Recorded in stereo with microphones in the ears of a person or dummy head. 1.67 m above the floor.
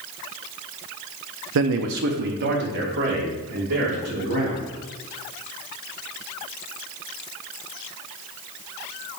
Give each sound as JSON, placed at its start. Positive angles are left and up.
{"t": 1.6, "sound": "a man speaking", "side_deg": -65, "distance_m": 0.5}